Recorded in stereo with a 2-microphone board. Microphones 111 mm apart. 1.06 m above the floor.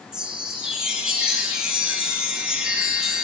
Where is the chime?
5° right (ahead or behind), 1.0 m.